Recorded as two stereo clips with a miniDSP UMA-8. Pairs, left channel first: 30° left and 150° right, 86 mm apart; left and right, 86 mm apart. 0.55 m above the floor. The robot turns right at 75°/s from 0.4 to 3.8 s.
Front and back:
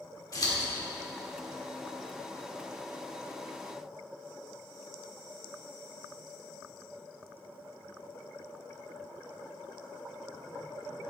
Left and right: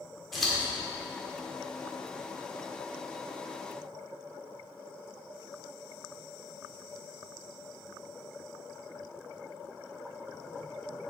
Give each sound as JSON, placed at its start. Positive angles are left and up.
{"t": 0.3, "sound": "scissors", "azimuth_deg": 0, "distance_m": 1.5}